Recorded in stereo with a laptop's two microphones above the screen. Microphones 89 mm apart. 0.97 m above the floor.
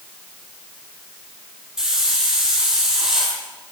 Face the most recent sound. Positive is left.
turn(degrees=-5)  # may be behind; listen again after turning